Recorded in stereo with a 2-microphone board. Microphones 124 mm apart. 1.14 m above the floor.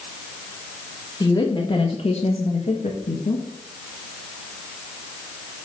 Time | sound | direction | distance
1.2 | a woman speaking | 30° left (ahead or behind) | 1.9 m